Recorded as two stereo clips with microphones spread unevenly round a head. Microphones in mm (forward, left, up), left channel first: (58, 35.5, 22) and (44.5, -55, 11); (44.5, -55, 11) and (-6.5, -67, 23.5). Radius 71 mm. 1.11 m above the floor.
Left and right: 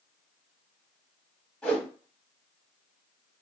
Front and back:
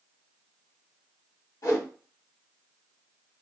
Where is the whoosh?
15° left, 1.3 m.